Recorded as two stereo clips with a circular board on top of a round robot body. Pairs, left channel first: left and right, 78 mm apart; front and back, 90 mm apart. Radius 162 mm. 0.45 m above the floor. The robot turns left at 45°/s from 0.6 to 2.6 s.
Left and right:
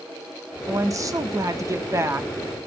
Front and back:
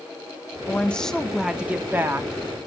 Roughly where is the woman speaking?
Ahead right.